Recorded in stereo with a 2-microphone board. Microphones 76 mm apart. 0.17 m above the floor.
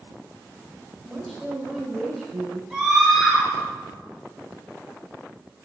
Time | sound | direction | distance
1.0 | a woman speaking | 10° right (ahead or behind) | 2.5 m
2.7 | a scream | 10° right (ahead or behind) | 3 m